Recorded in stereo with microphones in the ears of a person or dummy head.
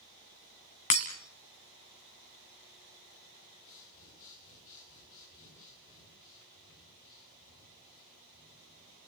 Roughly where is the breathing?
Left.